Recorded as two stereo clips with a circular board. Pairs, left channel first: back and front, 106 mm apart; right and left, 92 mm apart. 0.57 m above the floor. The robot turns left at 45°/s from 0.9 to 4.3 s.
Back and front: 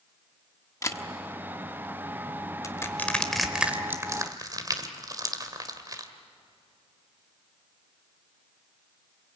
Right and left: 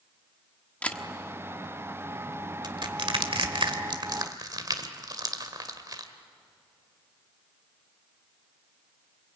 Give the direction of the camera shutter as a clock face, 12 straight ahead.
5 o'clock.